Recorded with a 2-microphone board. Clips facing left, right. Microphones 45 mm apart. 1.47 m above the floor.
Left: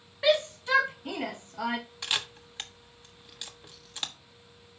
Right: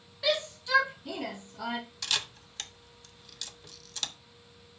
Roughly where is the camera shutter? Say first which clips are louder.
Left 1 dB; left.